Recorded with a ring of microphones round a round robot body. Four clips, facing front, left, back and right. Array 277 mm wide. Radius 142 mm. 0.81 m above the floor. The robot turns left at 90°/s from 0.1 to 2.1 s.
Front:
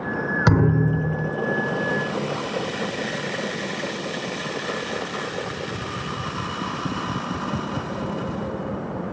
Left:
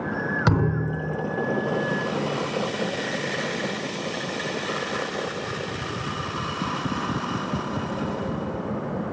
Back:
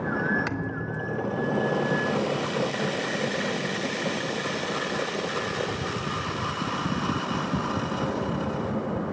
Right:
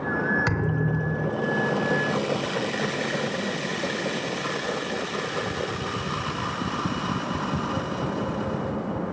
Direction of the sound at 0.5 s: 25° left.